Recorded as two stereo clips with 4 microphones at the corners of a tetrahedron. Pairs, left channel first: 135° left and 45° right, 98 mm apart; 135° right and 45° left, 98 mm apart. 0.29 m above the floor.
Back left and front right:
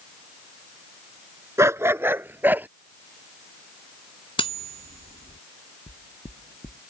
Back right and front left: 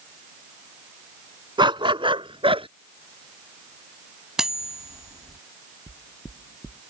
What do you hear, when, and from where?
1.6 s a dog barking: 10° left; by 2.7 s 25° left
4.4 s cutlery clinking: 130° left
5.9 s knocking: 160° left